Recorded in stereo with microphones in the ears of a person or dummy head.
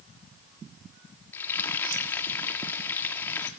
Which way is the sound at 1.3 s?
15° left (ahead or behind).